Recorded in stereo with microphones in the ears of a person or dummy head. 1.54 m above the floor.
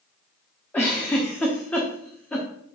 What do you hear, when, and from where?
0.7 s a giggle: 10° left (ahead or behind), 1.2 m